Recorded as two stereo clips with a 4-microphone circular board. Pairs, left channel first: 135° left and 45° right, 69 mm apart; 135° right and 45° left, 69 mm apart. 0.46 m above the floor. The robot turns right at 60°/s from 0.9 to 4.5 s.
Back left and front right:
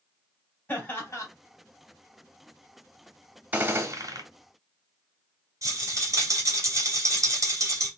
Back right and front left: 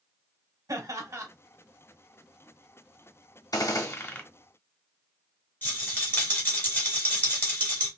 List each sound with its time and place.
0.7 s laughter: 75° left, 2.5 m; by 1.3 s 95° left, 2.5 m
3.5 s a gunshot: 110° right, 1.1 m; by 4.2 s 70° right, 1.1 m
5.6 s a rattle: 75° right, 2.5 m